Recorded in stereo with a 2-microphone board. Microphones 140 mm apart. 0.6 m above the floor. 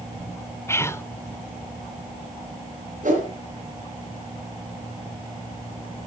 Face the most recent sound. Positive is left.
turn(degrees=-70)  # may be behind; listen again after turning